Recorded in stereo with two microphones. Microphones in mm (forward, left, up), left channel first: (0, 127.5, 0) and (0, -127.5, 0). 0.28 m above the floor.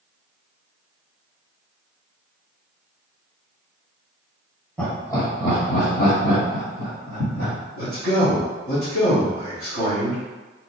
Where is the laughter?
5° left (ahead or behind), 1.3 m; by 7.5 s 55° left (ahead or behind), 2.5 m.